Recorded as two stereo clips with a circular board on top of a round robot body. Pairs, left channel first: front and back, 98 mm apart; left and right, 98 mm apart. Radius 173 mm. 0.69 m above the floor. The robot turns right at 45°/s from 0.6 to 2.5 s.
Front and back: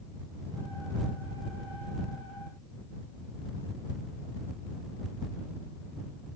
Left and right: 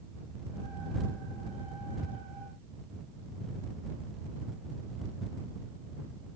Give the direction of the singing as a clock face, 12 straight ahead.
I don't hear singing.